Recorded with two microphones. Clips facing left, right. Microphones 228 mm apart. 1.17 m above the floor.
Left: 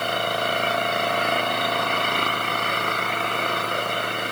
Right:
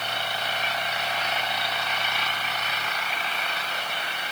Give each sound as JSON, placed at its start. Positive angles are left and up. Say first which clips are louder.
{"t": 0.0, "sound": "an engine running", "louder": "left 8 dB", "side_deg": 55}